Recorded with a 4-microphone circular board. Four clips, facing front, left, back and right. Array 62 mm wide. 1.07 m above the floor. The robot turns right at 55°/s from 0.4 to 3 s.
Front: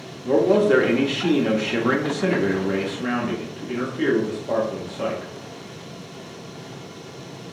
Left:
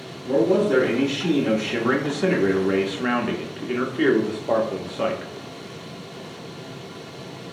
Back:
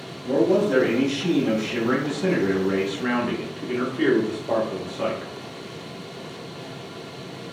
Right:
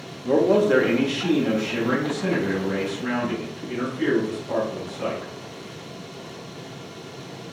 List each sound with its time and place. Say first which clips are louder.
0.2 s a man speaking: right 1 dB, front 3 dB; 50° right, 1.0 m; by 5.3 s 95° left, 1.0 m